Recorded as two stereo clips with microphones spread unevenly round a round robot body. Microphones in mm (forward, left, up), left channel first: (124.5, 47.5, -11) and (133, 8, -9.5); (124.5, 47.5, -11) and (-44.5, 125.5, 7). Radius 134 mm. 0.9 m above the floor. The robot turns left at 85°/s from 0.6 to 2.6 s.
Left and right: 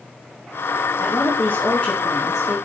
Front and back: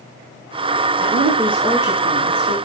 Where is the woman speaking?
95° left, 4.5 m; by 2.5 s 40° right, 4.5 m.